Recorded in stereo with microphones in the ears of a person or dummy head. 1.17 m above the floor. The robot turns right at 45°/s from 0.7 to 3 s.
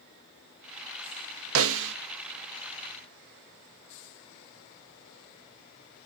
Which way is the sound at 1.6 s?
70° right (ahead or behind).